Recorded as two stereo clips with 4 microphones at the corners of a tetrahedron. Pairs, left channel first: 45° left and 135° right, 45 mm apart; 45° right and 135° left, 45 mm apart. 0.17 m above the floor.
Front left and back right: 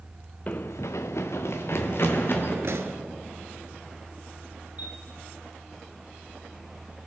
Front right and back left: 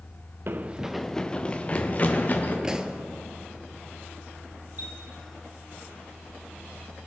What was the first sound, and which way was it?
Running footsteps, 100° left.